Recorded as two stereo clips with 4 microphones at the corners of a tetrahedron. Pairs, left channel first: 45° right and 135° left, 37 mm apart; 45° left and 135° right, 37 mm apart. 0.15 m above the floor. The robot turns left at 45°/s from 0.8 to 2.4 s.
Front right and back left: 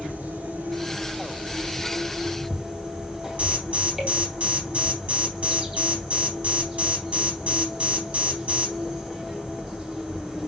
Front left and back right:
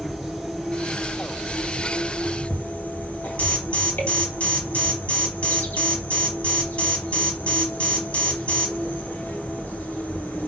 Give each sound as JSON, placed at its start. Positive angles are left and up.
{"t": 0.0, "sound": "an insect", "azimuth_deg": 130, "distance_m": 3.5}
{"t": 3.4, "sound": "an alarm", "azimuth_deg": 90, "distance_m": 3.5}